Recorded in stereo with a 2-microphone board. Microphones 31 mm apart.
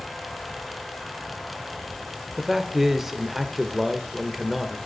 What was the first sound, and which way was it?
A man speaking, 10° right (ahead or behind).